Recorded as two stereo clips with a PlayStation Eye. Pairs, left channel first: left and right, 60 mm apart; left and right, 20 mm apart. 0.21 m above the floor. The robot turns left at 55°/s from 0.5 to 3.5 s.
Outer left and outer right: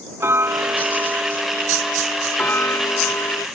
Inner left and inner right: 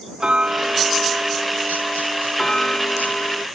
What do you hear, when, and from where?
0.2 s ticking: 115° right; by 3.5 s 80° left